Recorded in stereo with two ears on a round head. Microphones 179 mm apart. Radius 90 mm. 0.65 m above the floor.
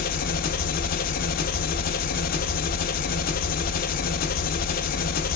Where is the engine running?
45° left (ahead or behind), 0.7 m.